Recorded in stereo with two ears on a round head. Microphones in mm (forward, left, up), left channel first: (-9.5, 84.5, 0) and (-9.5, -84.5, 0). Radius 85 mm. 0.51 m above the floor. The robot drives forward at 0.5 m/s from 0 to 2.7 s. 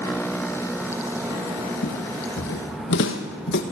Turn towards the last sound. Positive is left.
turn(degrees=60)  # may be behind; listen again after turning